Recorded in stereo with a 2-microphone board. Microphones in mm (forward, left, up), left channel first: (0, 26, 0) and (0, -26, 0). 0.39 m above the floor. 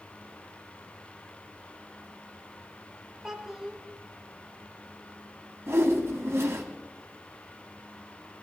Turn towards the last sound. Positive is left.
turn(degrees=-55)  # may be behind; listen again after turning